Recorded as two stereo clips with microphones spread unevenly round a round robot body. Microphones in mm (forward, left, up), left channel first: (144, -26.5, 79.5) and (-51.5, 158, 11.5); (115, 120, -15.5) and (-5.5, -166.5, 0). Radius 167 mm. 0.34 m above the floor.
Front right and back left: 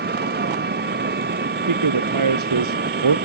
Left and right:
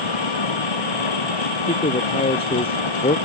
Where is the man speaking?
140° left.